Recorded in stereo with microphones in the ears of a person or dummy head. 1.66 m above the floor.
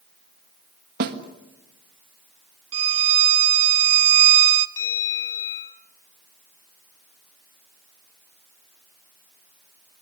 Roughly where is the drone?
No drone in this recording.